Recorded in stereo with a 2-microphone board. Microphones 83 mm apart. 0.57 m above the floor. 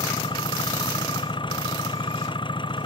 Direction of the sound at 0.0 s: 75° left (ahead or behind).